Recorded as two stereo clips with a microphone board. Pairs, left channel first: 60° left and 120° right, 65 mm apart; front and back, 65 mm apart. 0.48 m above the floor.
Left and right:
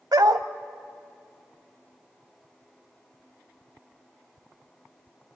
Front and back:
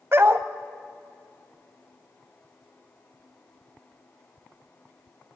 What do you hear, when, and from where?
0.1 s a dog barking: 130° right, 0.9 m